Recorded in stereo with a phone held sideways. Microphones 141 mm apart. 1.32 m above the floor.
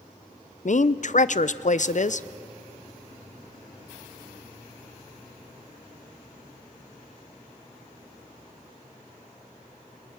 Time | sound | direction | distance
0.7 | a woman speaking | 60° left (ahead or behind) | 0.5 m